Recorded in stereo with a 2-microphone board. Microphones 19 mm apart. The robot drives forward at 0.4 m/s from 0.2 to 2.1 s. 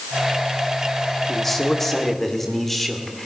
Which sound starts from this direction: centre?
A man speaking, at 1.3 s.